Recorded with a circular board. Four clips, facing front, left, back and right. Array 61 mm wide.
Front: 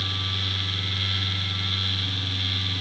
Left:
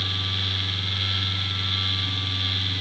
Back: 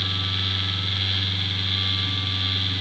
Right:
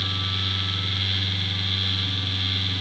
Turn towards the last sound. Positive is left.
No sound to turn to.